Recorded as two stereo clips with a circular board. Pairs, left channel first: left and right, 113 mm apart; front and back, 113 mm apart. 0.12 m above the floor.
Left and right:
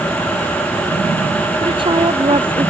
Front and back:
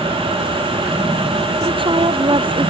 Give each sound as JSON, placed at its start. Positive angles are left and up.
{"t": 1.6, "sound": "a woman speaking", "azimuth_deg": -135}